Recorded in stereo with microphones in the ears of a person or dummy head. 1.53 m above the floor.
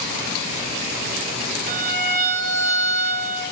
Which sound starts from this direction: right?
A violin, at 1.7 s.